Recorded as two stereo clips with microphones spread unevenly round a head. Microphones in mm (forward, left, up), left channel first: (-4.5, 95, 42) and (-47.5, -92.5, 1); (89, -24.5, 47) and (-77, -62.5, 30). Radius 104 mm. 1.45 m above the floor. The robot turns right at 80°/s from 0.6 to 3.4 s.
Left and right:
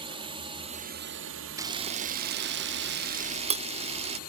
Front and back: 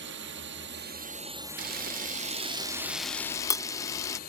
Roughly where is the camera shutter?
Behind.